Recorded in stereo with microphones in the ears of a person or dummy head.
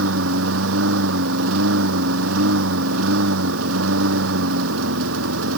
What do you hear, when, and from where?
0.0 s a lawn mower: 80° right